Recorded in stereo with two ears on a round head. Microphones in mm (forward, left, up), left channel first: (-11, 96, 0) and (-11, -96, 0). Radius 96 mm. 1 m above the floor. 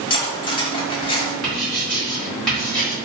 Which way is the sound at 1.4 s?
5° left (ahead or behind).